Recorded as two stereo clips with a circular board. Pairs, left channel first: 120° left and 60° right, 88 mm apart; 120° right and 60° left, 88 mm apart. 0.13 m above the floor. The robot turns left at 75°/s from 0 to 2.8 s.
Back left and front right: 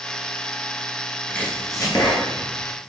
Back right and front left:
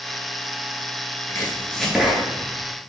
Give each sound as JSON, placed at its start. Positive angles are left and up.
{"t": 1.3, "sound": "chopping", "azimuth_deg": -165, "distance_m": 1.1}